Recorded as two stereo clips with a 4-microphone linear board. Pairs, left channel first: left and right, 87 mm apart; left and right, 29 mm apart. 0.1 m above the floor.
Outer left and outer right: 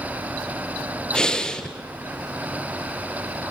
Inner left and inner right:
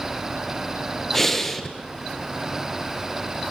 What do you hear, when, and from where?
1.1 s breathing: 10° left (ahead or behind), 1.9 m